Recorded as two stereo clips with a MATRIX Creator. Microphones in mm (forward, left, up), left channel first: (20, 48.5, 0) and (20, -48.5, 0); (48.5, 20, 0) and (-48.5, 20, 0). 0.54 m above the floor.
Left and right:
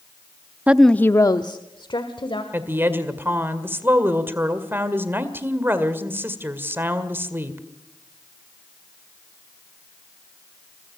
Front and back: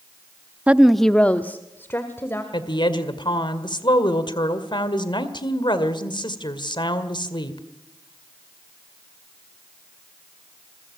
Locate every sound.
0.7 s a woman speaking: 135° right, 0.6 m; by 2.4 s 65° left, 2 m
2.5 s a woman speaking: 25° right, 1.9 m